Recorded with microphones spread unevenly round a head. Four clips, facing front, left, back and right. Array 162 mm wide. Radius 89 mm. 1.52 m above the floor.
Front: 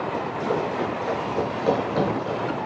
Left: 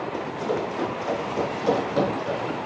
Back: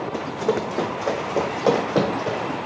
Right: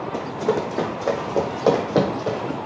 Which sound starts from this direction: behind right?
Running footsteps, at 0.1 s.